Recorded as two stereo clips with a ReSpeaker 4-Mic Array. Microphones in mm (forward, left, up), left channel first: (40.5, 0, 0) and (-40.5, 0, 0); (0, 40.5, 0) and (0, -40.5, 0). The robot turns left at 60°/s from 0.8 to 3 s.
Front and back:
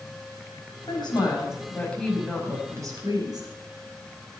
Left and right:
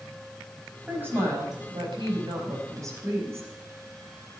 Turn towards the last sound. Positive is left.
turn(degrees=-145)